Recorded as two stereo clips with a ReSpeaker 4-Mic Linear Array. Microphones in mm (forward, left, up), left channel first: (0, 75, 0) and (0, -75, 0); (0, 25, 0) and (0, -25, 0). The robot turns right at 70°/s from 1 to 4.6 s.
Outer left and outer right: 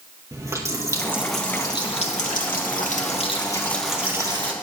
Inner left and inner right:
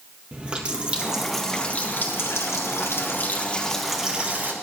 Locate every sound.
0.3 s a running tap: 25° right, 1.8 m; by 4.5 s 135° right, 1.8 m